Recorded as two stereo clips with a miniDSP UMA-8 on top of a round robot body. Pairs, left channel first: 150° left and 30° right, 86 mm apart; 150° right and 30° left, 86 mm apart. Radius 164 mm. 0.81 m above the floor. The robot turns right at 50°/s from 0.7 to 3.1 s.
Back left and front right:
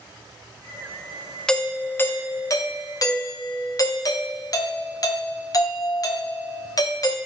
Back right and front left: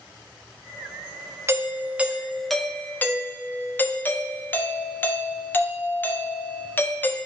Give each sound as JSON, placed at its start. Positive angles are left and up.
{"t": 1.5, "sound": "a doorbell", "azimuth_deg": 70, "distance_m": 1.3}